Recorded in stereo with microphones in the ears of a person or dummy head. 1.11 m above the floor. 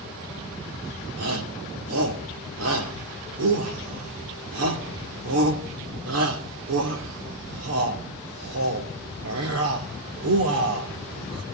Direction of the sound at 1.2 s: 85° right.